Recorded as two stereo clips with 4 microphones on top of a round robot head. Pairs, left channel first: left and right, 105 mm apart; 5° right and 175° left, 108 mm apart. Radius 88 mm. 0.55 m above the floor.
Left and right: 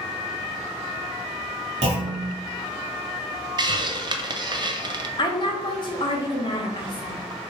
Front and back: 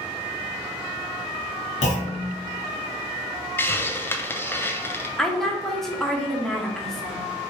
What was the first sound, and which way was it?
A clunk, 40° right.